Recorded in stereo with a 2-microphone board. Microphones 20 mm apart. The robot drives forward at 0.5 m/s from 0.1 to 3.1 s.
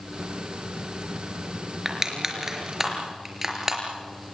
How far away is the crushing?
About 4 m.